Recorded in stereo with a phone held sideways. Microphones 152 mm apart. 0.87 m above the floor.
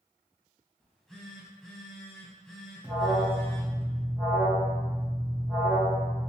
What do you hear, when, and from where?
0.8 s a phone buzzing: 5° left (ahead or behind), 0.7 m
2.8 s an alarm: 10° right (ahead or behind), 0.9 m